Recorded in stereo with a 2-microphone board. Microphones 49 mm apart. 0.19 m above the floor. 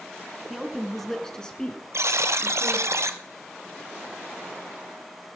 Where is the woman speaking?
10° right (ahead or behind), 2 m; by 2.9 s 40° left (ahead or behind), 3 m.